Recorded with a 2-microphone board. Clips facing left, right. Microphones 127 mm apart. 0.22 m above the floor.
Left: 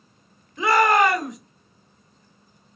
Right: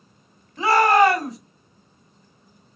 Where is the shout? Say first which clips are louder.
Right 2 dB; 35° right (ahead or behind), 1.8 m.